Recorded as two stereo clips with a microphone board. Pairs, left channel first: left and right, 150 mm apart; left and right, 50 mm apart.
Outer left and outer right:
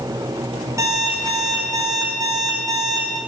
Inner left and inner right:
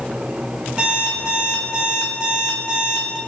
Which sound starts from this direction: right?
An alarm clock, at 0.8 s.